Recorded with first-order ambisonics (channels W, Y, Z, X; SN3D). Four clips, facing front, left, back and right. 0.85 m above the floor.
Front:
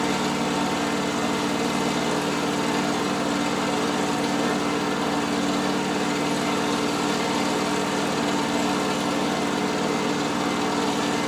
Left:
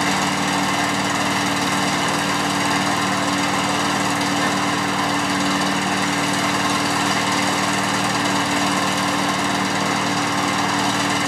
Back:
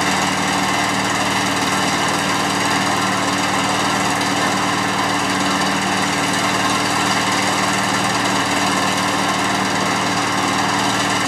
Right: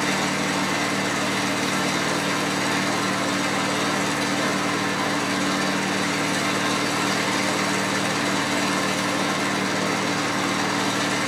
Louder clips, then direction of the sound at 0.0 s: Left 3 dB, back 6 dB; 155° left.